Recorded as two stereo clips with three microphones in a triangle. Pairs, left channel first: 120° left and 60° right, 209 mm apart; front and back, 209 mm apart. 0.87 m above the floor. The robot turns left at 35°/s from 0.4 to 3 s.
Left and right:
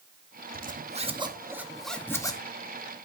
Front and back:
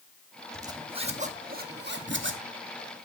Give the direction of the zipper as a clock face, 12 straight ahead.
4 o'clock.